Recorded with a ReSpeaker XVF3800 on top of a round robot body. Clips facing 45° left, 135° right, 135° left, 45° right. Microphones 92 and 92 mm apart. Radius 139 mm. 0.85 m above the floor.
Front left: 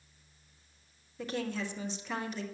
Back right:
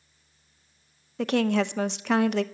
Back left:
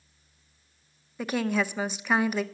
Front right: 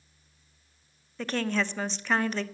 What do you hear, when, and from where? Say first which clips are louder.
1.2 s a woman speaking: back right 12 dB, back left 2 dB; 145° right, 0.6 m